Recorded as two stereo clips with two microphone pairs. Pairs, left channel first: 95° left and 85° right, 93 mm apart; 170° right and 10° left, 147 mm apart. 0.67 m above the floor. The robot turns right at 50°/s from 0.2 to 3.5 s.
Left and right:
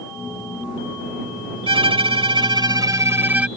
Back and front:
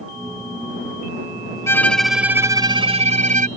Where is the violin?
100° right; by 3.5 s 10° right.